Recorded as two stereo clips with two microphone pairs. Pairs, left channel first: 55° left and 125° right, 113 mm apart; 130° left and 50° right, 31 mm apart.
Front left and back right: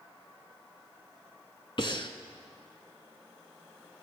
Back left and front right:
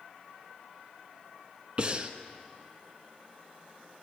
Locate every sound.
1.8 s breathing: 10° left, 0.8 m